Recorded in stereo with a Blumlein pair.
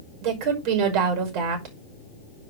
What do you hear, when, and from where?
0.2 s a woman speaking: 45° right, 5.5 m